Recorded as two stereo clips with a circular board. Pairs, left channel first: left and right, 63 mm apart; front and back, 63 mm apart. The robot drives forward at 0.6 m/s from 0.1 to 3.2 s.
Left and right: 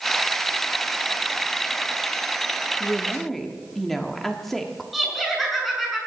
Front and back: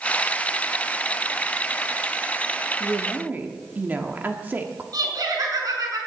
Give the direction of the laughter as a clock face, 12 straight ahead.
6 o'clock.